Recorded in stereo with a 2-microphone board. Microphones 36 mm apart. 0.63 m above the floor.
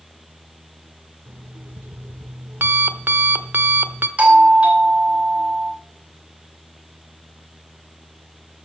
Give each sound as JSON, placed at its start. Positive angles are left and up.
{"t": 1.3, "sound": "an alarm clock", "side_deg": -75, "distance_m": 0.8}
{"t": 4.2, "sound": "a doorbell", "side_deg": -40, "distance_m": 3.0}